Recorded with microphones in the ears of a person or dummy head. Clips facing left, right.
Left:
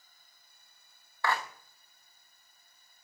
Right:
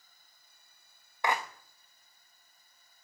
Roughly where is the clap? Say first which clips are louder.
Right 1 dB; right.